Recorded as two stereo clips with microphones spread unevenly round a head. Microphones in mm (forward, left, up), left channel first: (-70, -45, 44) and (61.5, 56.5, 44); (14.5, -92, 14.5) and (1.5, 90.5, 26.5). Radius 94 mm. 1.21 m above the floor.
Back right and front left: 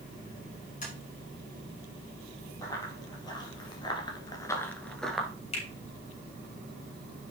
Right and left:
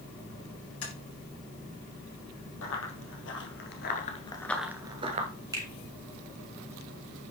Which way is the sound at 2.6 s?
75° right.